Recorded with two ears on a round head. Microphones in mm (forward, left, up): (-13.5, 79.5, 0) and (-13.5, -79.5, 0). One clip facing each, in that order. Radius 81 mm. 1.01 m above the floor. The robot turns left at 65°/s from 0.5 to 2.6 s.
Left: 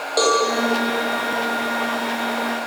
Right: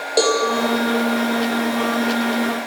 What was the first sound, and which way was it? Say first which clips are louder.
A cowbell: right 1 dB; 25° right (ahead or behind).